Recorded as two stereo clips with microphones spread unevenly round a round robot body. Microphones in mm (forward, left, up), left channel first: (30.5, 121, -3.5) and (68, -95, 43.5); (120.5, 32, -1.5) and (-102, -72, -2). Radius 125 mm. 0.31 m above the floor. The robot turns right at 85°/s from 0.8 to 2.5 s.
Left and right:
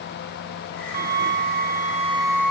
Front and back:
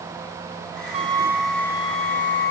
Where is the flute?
110° right; by 2.5 s 25° left.